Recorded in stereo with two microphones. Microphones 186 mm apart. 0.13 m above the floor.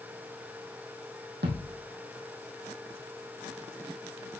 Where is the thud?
65° right (ahead or behind), 3 m.